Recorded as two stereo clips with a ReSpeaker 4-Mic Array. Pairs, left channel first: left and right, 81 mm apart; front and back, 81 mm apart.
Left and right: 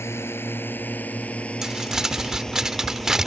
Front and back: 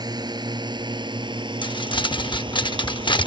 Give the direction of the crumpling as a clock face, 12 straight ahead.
12 o'clock.